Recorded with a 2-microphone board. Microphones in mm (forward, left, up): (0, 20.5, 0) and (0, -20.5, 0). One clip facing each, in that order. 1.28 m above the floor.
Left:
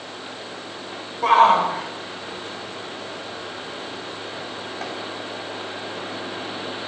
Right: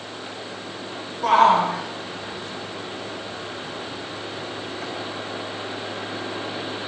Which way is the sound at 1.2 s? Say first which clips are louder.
Left 1 dB; 45° left (ahead or behind).